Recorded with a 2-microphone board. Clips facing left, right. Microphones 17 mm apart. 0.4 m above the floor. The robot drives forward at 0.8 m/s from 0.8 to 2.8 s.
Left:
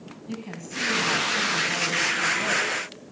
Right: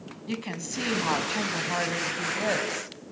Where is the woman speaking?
45° right (ahead or behind), 3.5 m; by 2.9 s 65° right (ahead or behind), 3 m.